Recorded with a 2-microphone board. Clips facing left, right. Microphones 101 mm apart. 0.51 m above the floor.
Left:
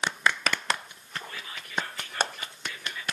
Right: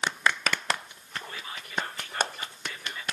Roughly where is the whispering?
Right.